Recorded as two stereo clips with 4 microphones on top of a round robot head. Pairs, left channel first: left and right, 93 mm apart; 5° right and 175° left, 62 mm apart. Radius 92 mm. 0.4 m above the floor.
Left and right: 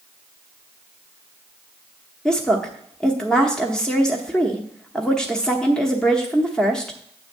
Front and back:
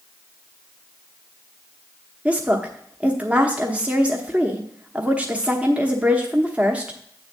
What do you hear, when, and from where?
2.2 s a woman speaking: 160° left, 1.1 m